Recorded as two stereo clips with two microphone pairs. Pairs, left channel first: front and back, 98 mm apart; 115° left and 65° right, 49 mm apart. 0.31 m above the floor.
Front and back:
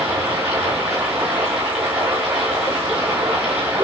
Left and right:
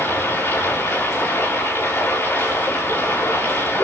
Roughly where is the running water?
Left.